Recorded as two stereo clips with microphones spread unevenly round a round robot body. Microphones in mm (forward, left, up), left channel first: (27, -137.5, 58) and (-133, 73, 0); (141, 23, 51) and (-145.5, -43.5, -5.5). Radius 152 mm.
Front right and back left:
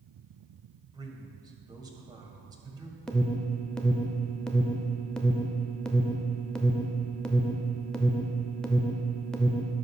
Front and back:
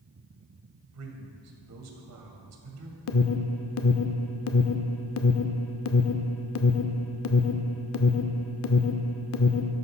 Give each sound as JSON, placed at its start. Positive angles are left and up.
{"t": 0.9, "sound": "a man speaking", "azimuth_deg": -165, "distance_m": 1.7}
{"t": 3.1, "sound": "an alarm", "azimuth_deg": 45, "distance_m": 0.6}